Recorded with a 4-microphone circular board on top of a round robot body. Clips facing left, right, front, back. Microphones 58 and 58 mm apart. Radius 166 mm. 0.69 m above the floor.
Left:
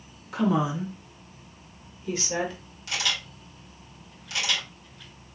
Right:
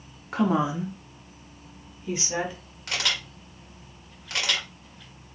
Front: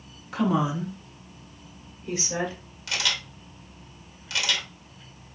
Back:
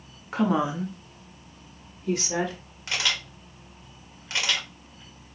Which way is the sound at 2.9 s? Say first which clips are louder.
Right 1 dB, back 1 dB; 125° right.